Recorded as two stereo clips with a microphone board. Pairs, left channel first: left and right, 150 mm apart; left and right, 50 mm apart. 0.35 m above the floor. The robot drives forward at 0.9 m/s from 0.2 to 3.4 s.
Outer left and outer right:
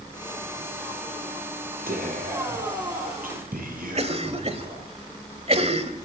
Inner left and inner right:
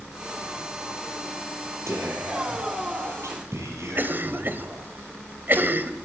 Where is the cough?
45° right (ahead or behind), 1.7 m.